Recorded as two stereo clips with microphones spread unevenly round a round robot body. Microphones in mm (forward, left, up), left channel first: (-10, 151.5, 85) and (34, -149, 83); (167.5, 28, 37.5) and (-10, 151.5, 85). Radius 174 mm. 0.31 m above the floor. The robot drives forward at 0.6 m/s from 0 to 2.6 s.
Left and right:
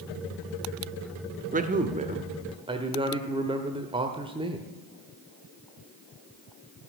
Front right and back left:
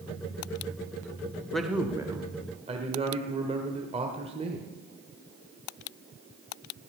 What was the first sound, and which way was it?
A man speaking, 90° right.